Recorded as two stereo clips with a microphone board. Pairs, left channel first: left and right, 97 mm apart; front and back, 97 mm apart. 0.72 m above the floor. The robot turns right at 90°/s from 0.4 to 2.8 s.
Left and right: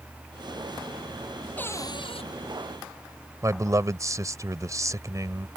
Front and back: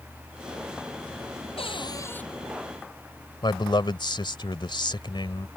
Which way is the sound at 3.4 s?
35° right.